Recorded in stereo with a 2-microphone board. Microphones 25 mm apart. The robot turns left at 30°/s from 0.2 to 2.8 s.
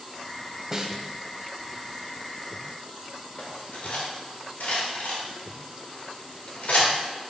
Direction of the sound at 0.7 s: 20° right (ahead or behind).